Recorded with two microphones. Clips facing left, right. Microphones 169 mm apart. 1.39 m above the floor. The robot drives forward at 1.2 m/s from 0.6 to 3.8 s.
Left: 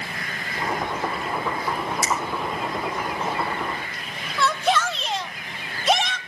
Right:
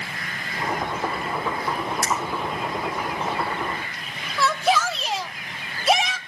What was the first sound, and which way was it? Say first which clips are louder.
A finger snap: even; 60° right (ahead or behind).